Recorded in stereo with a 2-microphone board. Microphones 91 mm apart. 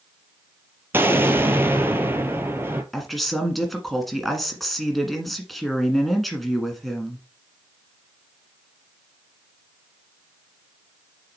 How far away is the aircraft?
I don't hear an aircraft.